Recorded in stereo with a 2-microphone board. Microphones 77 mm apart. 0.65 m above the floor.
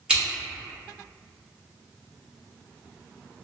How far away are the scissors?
About 1.2 m.